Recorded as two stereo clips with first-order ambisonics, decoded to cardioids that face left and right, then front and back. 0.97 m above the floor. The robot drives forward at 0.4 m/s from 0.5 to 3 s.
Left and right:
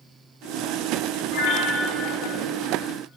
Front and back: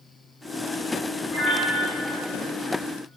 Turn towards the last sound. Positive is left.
turn(degrees=95)